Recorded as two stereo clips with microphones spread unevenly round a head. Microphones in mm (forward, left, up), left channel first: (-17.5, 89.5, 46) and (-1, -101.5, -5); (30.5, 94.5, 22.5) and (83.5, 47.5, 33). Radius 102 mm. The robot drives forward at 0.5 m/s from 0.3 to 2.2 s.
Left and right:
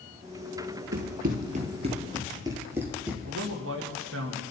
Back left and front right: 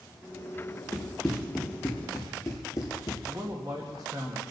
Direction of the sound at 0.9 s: 115° right.